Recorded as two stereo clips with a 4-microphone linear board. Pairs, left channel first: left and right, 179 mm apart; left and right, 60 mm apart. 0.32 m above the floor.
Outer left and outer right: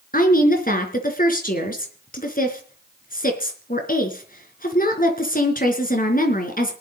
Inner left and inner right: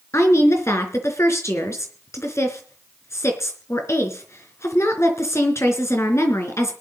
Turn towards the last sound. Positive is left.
turn(degrees=55)  # may be behind; listen again after turning